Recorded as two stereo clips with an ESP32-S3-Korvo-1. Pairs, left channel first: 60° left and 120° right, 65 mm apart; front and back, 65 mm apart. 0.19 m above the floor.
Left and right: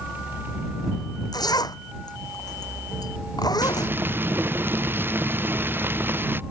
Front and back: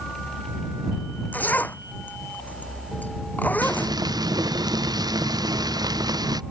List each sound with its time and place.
1.3 s a zipper: 65° left
3.6 s frying: straight behind